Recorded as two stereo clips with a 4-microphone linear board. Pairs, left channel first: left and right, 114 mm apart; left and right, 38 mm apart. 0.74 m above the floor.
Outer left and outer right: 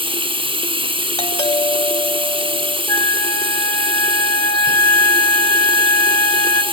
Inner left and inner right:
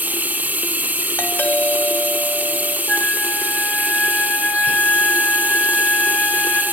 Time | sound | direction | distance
0.0 | running water | 50° right (ahead or behind) | 0.8 m
1.2 | a doorbell | 55° left (ahead or behind) | 1.6 m
2.9 | a flute | 35° left (ahead or behind) | 2.5 m